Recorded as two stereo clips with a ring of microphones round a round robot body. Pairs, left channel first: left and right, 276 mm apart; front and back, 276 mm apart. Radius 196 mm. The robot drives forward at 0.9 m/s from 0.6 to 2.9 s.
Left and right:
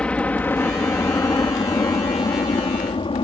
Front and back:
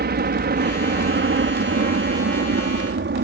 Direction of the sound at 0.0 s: 175° left.